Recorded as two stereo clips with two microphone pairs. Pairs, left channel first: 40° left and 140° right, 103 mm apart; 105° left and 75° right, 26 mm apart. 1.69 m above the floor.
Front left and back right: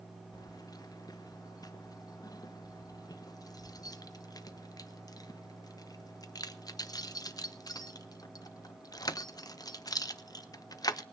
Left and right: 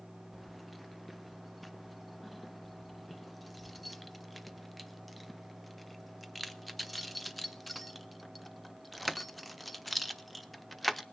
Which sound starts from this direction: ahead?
Keys jangling, at 0.3 s.